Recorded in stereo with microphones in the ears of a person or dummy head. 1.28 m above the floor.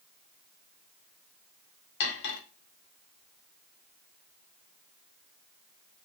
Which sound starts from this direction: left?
Cutlery clinking, at 2.0 s.